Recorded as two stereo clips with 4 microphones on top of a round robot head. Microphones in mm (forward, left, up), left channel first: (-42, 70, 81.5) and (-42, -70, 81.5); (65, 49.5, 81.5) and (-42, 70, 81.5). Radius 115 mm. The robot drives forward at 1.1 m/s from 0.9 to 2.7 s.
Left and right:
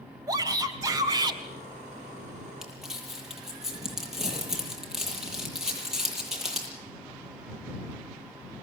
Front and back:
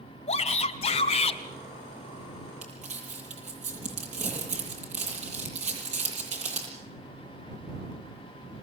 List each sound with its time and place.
0.3 s a shout: 25° right, 2.5 m; by 1.4 s 30° right, 2 m
2.6 s crumpling: 175° right, 9.5 m